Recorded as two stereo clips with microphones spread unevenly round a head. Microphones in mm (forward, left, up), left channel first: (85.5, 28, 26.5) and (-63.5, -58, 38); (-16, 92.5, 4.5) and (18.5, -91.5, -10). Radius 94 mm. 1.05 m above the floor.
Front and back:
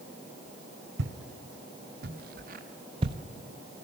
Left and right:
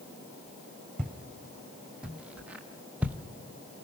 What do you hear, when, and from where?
1.0 s footsteps: 165° right, 2.5 m; by 3.2 s 160° right, 1.1 m